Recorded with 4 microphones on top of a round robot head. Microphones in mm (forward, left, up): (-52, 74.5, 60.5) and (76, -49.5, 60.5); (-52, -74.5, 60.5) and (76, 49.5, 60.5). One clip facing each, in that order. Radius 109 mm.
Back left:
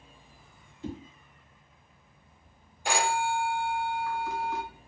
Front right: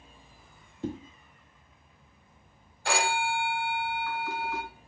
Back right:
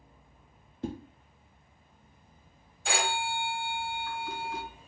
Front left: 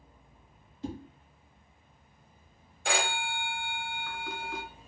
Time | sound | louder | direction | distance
0.8 | a whoosh | front right 4 dB, back right 2 dB | 95° right | 0.5 m
2.9 | a phone ringing | back left 1 dB, even | 65° left | 1.2 m